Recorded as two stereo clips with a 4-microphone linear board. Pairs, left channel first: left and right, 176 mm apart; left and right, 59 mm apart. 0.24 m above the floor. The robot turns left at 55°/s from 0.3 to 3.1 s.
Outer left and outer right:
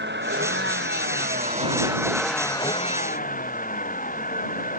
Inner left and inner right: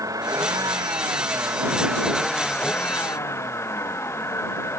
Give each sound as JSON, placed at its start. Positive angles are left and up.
{"t": 0.0, "sound": "a vehicle", "azimuth_deg": -75}